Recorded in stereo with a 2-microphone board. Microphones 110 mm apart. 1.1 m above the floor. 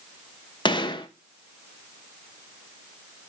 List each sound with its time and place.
0.7 s a gunshot: 45° left (ahead or behind), 0.7 m